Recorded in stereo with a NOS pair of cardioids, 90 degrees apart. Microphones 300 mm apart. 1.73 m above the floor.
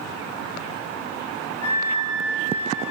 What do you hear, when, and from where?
1.6 s a flute: 55° left, 1.6 m